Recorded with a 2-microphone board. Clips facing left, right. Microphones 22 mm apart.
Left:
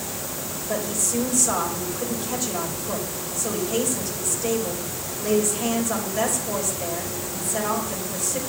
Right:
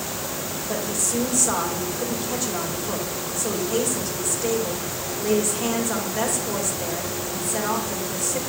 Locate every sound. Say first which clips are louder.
0.7 s a woman speaking: left 1 dB; 20° right (ahead or behind), 3.5 m